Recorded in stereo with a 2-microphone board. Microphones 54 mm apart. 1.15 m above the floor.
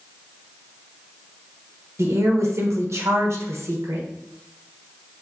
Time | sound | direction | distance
2.0 | a woman speaking | 60° right (ahead or behind) | 1.2 m